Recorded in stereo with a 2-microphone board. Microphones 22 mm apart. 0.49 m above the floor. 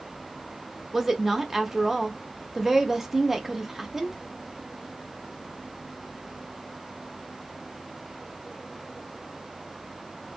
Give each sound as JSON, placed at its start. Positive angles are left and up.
{"t": 0.9, "sound": "a woman speaking", "side_deg": -15, "distance_m": 0.8}